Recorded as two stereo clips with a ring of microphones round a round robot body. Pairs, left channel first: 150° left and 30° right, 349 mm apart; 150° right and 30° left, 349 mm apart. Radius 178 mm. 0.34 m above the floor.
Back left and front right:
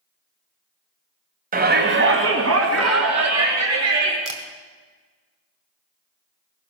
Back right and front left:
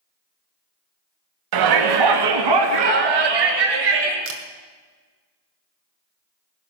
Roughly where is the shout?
Ahead left.